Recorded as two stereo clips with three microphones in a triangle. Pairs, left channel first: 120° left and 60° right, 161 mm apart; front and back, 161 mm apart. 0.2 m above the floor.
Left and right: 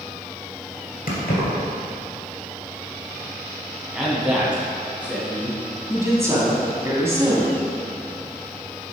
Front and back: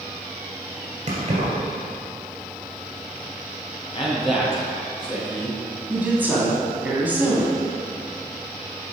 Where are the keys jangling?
135° left, 2.5 m.